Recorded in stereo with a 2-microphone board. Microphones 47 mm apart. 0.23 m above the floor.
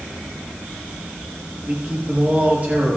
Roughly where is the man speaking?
Right.